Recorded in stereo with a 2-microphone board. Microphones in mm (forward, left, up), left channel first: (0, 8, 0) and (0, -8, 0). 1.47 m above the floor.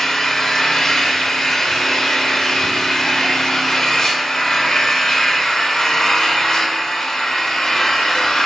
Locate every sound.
0.0 s an engine running: 65° left (ahead or behind), 2 m